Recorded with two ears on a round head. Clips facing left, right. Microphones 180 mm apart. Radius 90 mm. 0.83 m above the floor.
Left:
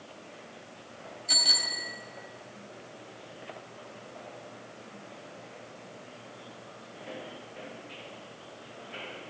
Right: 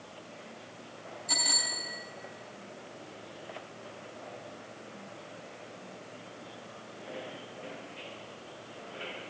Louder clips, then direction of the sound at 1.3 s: Right 1 dB; 30° left (ahead or behind).